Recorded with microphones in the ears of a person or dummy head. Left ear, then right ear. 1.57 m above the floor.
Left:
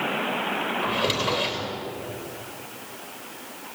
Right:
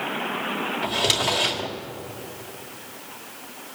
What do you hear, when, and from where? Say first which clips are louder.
0.8 s a drawer: right 4 dB; 15° right (ahead or behind), 1.9 m